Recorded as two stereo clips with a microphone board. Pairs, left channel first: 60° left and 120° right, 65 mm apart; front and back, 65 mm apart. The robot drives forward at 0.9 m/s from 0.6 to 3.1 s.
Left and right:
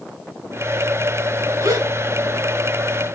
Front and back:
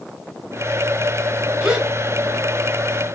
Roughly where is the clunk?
No clunk in this recording.